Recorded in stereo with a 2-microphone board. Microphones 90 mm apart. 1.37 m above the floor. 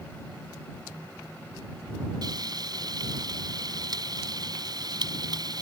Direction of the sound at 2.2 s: 50° right (ahead or behind).